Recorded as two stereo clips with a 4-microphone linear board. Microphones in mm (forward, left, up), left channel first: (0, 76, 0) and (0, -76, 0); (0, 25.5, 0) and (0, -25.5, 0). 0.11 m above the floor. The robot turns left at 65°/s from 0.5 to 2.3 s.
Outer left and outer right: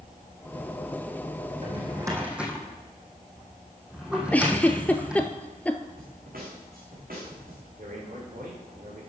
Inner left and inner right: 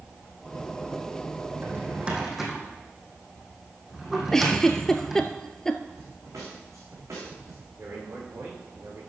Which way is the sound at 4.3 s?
10° left (ahead or behind).